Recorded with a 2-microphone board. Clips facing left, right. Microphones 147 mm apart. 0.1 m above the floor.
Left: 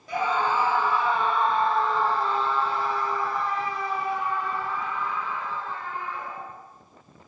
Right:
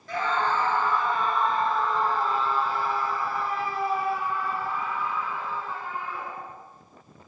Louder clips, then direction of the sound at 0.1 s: Left 1 dB; 15° left (ahead or behind).